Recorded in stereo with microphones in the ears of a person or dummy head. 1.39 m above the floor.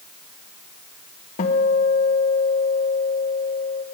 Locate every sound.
1.4 s a guitar: 40° left (ahead or behind), 1.0 m